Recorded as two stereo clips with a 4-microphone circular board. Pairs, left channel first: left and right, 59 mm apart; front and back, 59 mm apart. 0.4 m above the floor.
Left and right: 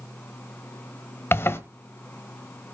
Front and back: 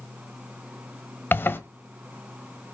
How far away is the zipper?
About 1.2 m.